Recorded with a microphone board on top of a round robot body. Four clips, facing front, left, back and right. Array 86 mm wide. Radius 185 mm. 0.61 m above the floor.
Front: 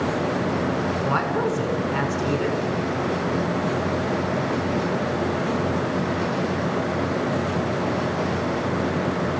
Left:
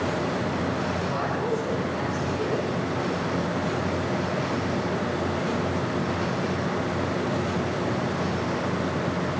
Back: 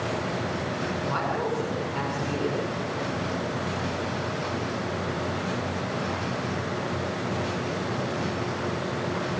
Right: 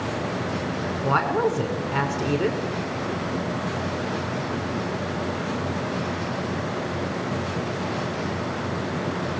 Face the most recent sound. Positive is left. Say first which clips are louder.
# right 5 dB, front 4 dB
turn(degrees=-70)